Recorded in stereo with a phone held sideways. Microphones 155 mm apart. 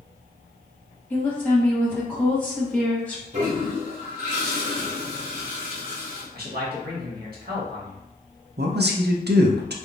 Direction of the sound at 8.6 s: 85° right.